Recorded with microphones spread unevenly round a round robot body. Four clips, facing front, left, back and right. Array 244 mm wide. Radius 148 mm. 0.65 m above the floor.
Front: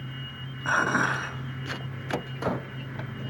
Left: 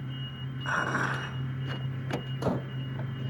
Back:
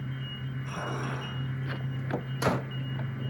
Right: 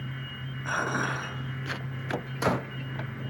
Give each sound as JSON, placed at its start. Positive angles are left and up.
{"t": 0.7, "sound": "dishes clattering", "azimuth_deg": -15, "distance_m": 3.5}